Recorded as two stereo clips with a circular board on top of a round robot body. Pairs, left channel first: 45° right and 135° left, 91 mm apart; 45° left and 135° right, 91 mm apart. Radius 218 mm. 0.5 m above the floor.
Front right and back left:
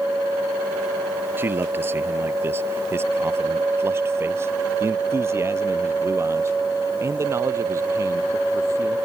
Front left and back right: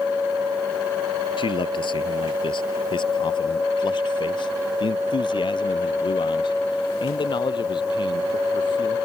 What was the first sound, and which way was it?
A man speaking, 70° left.